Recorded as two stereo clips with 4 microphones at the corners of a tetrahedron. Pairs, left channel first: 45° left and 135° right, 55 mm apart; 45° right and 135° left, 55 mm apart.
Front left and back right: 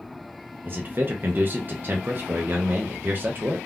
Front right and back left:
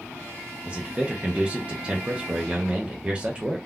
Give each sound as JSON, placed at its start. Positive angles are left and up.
{"t": 0.7, "sound": "a man speaking", "azimuth_deg": -165, "distance_m": 0.5}